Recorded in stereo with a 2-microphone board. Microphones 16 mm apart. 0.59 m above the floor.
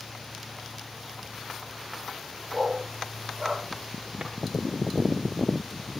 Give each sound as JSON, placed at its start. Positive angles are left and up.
{"t": 2.5, "sound": "a dog barking", "side_deg": -35, "distance_m": 9.5}
{"t": 4.2, "sound": "a drawer", "side_deg": -55, "distance_m": 4.0}